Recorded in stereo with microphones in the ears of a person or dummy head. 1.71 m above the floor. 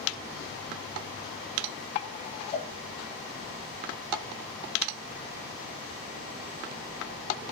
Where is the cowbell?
15° left (ahead or behind), 0.6 m.